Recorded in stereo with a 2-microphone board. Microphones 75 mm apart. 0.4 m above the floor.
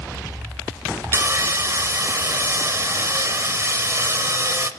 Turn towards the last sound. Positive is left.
turn(degrees=-35)  # may be behind; listen again after turning